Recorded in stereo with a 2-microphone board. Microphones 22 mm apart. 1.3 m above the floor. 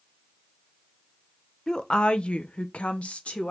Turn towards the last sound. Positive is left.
turn(degrees=70)  # may be behind; listen again after turning